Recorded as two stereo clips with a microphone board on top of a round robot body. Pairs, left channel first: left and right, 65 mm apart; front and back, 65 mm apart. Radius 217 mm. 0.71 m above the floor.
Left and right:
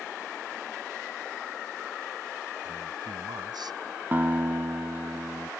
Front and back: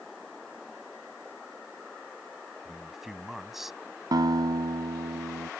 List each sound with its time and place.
2.6 s a man speaking: 95° right
4.1 s a guitar: 155° right